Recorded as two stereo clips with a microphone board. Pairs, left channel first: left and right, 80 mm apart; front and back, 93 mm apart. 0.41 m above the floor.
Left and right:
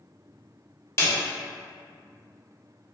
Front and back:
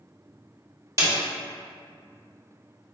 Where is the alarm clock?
I don't hear an alarm clock.